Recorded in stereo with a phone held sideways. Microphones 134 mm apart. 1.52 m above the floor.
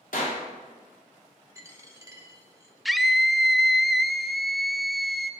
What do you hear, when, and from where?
0.1 s a clap: 80° left, 3.5 m
1.6 s a dropped coin: 20° right (ahead or behind), 1.2 m
2.9 s a scream: centre (ahead or behind), 0.5 m